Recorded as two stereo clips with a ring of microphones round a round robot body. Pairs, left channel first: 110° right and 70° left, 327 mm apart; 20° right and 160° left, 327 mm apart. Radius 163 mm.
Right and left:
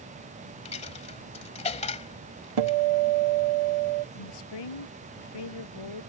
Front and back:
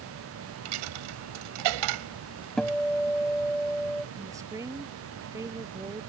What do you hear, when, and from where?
0.7 s a dropped coin: 175° left
2.6 s a guitar: 65° left
4.2 s a woman speaking: 120° right